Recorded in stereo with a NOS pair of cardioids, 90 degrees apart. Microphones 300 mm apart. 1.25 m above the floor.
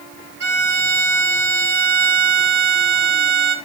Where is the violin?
40° right, 4 m.